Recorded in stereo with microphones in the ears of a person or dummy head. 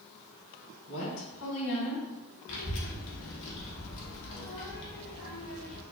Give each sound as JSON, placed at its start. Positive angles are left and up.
{"t": 0.9, "sound": "a woman speaking", "side_deg": 65, "distance_m": 1.6}
{"t": 2.5, "sound": "a child speaking", "side_deg": 70, "distance_m": 1.5}